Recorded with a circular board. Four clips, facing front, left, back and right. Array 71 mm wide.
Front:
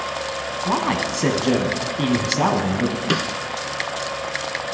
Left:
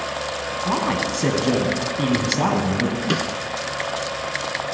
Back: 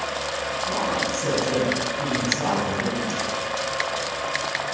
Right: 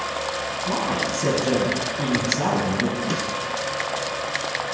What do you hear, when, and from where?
0.7 s a man speaking: 25° left, 3 m
3.1 s a snare drum: 25° left, 0.5 m